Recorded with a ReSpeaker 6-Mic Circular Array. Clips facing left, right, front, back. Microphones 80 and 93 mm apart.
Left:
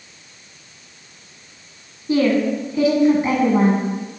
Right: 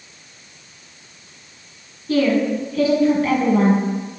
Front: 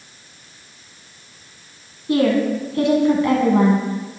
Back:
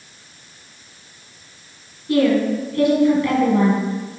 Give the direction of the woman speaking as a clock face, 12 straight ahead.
11 o'clock.